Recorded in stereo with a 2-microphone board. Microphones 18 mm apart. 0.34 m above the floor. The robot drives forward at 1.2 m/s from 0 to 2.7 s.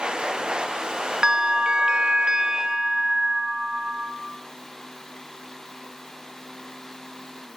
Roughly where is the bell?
Right.